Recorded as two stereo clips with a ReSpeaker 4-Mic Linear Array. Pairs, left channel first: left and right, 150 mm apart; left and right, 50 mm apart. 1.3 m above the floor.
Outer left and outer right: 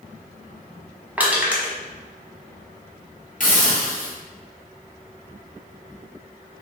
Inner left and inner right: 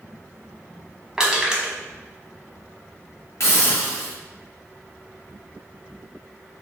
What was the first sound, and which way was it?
Crushing, 10° right (ahead or behind).